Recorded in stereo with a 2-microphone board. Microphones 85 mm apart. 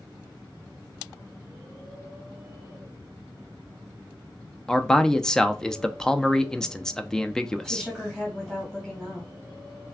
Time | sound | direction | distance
4.7 | a man speaking | 10° left (ahead or behind) | 0.5 m
7.6 | a woman speaking | 5° left (ahead or behind) | 1.6 m